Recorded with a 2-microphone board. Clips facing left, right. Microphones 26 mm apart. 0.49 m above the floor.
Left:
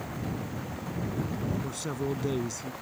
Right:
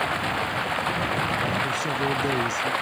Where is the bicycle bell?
No bicycle bell in this recording.